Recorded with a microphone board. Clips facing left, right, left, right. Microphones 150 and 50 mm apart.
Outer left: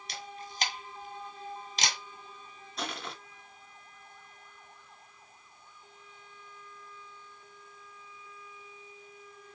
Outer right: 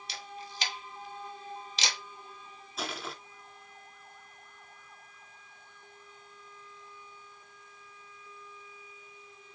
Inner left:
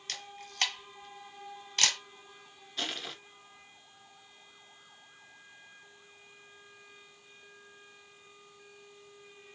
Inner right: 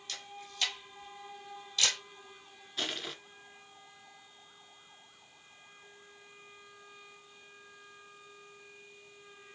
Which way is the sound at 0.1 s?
45° left (ahead or behind).